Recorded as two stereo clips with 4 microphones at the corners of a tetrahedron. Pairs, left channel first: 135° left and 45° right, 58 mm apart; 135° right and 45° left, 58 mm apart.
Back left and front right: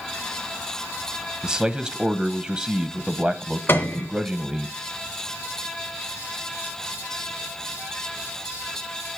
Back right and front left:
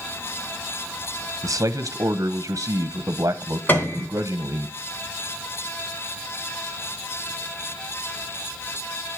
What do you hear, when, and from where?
1.4 s a man speaking: 30° left, 0.9 m
3.7 s a piano: straight behind, 2 m